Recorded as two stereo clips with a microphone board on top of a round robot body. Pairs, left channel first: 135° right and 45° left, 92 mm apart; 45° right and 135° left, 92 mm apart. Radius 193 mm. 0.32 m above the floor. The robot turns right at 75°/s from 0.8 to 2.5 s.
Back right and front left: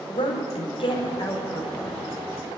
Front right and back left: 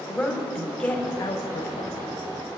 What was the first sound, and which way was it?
A woman speaking, 125° right.